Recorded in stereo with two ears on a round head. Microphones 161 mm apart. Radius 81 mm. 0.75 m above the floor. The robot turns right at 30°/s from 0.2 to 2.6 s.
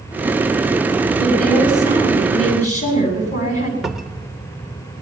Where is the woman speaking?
Straight ahead, 8 m; by 3.7 s 40° left, 8 m.